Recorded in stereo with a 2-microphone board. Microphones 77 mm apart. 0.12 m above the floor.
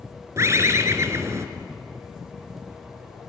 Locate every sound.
0.4 s a bird: 40° right (ahead or behind), 1.6 m